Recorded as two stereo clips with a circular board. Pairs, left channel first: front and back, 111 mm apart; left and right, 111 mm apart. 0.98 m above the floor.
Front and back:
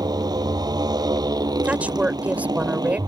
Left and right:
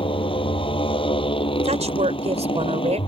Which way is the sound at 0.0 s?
130° left.